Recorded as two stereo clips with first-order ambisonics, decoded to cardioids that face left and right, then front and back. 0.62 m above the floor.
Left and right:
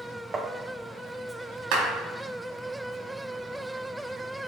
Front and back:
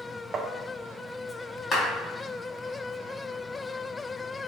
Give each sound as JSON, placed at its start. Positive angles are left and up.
{"t": 0.3, "sound": "tapping", "azimuth_deg": -145, "distance_m": 0.7}
{"t": 1.7, "sound": "a clap", "azimuth_deg": -70, "distance_m": 3.5}